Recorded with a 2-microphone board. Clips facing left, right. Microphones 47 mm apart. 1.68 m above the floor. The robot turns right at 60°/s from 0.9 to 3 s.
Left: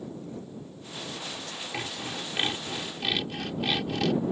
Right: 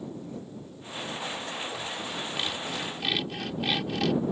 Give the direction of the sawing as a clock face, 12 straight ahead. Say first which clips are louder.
Even; 8 o'clock.